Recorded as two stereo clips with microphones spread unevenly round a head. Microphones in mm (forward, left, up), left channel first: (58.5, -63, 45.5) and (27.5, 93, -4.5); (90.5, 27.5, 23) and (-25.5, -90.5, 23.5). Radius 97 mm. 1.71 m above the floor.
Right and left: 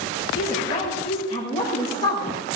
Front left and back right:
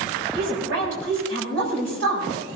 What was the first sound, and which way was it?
A woman speaking, 140° right.